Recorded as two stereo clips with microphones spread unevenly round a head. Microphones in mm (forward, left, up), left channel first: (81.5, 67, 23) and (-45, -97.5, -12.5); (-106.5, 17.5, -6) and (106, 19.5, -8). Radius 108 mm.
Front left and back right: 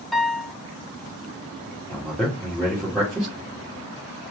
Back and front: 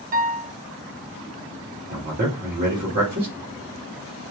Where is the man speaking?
40° right, 1.6 m.